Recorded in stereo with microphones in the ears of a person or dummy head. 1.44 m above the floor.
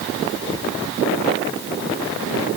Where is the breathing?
I don't hear breathing.